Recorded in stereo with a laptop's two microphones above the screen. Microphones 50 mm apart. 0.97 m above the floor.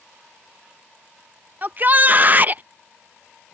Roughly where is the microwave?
No microwave in this recording.